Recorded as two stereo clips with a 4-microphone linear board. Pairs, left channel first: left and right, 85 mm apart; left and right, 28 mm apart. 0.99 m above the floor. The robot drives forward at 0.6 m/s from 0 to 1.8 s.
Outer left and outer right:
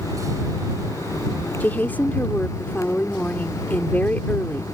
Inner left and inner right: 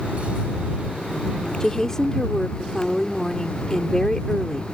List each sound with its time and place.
1.6 s a woman speaking: 20° left (ahead or behind)